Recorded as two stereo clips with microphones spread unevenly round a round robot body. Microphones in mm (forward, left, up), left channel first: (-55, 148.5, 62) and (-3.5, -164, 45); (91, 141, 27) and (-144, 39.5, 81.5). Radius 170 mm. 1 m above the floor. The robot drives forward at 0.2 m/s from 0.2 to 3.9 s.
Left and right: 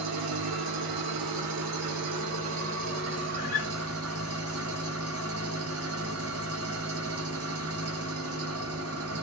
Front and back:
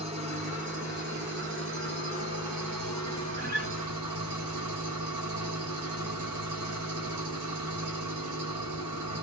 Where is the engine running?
85° right, 0.9 m; by 9.2 s 125° right, 1.1 m.